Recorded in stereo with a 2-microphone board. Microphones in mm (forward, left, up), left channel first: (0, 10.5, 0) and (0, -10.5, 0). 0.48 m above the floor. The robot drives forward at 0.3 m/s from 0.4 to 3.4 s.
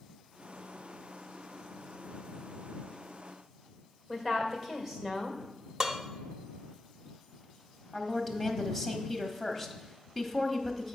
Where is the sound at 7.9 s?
5° right (ahead or behind), 0.8 m.